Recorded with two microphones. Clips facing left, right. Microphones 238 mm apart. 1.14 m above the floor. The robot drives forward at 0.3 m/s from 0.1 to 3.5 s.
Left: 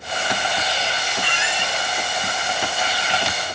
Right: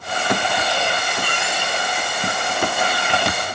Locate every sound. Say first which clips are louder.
1.2 s a squeak: right 2 dB; 45° right (ahead or behind); by 1.8 s 50° right (ahead or behind)